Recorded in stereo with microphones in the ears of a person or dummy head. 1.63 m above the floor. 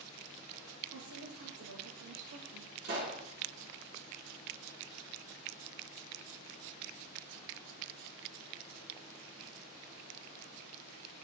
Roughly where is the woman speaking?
Right.